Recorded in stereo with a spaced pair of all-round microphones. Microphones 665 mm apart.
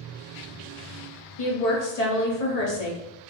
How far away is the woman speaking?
About 1.2 m.